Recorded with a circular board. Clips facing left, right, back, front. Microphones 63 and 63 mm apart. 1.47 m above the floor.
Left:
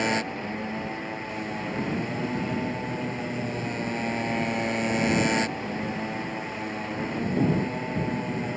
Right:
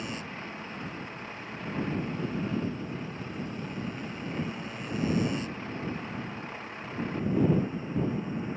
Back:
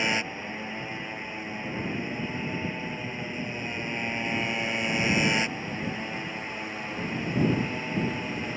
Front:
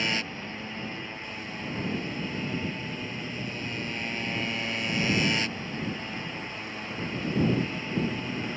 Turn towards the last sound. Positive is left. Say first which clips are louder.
# left 11 dB, back 2 dB
turn(degrees=110)